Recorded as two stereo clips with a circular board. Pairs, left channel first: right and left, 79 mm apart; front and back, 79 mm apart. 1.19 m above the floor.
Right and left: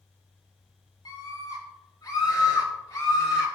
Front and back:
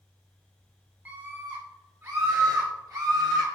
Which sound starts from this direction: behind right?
A scream, at 1.1 s.